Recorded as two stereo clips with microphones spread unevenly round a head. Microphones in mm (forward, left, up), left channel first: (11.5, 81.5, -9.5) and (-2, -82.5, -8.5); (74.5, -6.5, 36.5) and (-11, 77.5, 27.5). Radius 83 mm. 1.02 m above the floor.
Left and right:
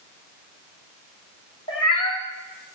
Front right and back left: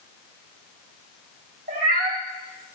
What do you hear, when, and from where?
1.7 s a cat meowing: 145° left, 3.5 m